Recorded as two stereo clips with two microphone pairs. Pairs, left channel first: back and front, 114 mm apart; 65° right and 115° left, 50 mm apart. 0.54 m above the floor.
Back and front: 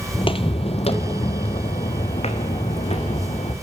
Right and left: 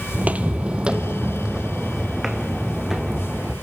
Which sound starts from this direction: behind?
Footsteps, at 0.1 s.